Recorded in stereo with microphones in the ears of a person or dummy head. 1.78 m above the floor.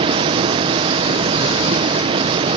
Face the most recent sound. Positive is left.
turn(degrees=-25)  # may be behind; listen again after turning